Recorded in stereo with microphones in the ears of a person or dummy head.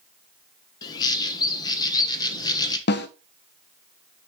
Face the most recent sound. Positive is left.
turn(degrees=55)  # may be behind; listen again after turning